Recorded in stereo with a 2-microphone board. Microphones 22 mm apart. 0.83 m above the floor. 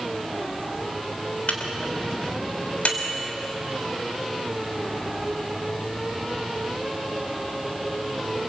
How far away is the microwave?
About 3 m.